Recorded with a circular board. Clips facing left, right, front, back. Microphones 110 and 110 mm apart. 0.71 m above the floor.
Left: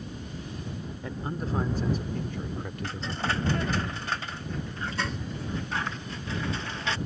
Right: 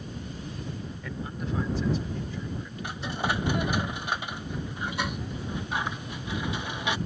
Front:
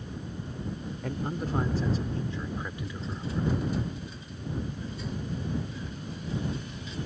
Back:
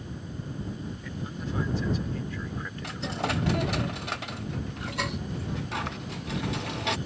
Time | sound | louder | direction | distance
1.0 | a man speaking | left 3 dB, front 7 dB | 30° left | ?
2.8 | a dropped coin | right 2 dB, back 5 dB | 165° right | ?